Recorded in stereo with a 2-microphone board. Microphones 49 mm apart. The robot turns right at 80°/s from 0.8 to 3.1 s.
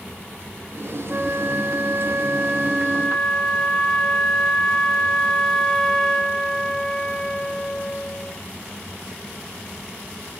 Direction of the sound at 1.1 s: 155° right.